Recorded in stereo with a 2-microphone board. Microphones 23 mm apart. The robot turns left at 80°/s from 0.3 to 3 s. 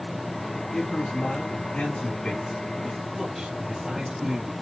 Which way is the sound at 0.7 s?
160° left.